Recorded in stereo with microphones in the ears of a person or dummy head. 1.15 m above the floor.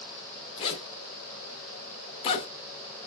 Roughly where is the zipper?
Left.